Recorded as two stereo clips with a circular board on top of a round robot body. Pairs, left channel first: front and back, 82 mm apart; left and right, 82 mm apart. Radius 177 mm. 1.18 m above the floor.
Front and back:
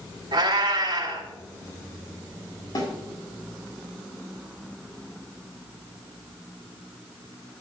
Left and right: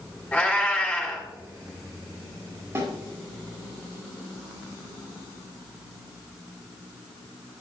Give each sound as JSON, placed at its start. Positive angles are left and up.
{"t": 0.3, "sound": "a cat meowing", "azimuth_deg": 165, "distance_m": 3.0}
{"t": 2.8, "sound": "a snare drum", "azimuth_deg": -30, "distance_m": 4.0}